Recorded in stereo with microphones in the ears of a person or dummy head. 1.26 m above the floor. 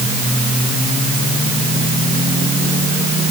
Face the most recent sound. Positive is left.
No sound to turn to.